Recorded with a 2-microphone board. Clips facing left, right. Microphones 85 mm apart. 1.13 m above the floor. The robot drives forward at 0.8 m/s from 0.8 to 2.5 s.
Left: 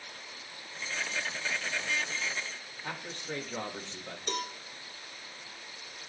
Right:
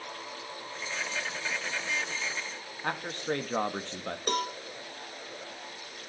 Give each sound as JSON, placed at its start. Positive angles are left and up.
{"t": 2.8, "sound": "a man speaking", "side_deg": -55, "distance_m": 1.9}
{"t": 4.3, "sound": "a cowbell", "side_deg": -50, "distance_m": 1.6}